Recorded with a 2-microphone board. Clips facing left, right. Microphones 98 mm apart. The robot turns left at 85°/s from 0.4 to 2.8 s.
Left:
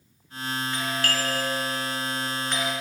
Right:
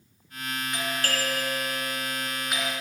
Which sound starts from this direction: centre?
A doorbell, at 0.7 s.